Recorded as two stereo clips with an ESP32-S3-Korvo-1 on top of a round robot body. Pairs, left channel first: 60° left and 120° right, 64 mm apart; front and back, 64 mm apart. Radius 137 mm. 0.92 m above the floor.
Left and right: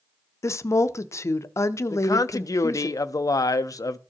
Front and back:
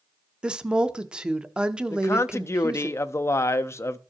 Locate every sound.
0.4 s a woman speaking: 100° left, 0.5 m
1.9 s a man speaking: 40° left, 0.5 m